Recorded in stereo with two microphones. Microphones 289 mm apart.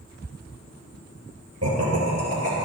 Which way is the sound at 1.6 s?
50° right (ahead or behind).